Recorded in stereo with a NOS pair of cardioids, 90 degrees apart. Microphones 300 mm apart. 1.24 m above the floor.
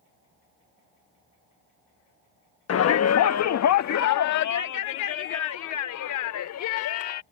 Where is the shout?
50° left; by 7.2 s 75° left.